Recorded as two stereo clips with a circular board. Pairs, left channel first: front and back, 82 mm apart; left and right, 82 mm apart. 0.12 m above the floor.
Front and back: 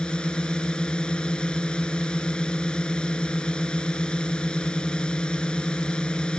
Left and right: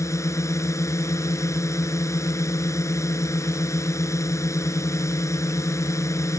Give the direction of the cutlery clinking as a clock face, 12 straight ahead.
I don't hear cutlery clinking.